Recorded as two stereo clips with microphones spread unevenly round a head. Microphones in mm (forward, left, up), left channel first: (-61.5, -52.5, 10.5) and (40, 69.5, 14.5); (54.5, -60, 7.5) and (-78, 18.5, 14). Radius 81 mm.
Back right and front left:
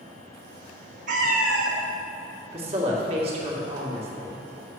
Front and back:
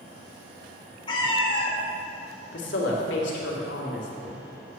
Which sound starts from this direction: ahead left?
A cat meowing, at 1.1 s.